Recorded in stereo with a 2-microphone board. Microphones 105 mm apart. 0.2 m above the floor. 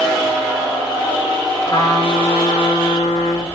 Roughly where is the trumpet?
Left.